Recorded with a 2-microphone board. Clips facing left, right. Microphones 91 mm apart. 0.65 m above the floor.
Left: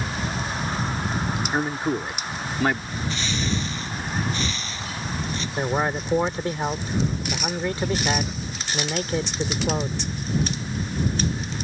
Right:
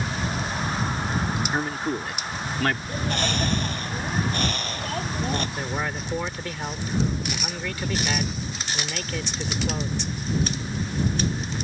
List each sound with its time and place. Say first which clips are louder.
1.5 s a man speaking: left 2 dB; 15° left (ahead or behind)
2.9 s a bird: right 2 dB; 55° right (ahead or behind)
5.6 s a man speaking: left 5 dB; 30° left (ahead or behind)